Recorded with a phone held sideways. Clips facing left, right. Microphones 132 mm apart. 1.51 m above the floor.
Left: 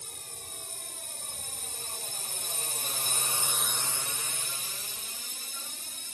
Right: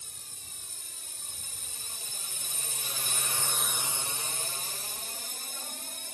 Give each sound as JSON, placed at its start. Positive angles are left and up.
{"t": 0.0, "sound": "a drone", "side_deg": 60}